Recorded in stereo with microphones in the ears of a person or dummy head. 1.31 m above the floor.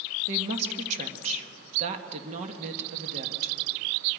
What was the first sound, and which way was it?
A woman speaking, 40° right (ahead or behind).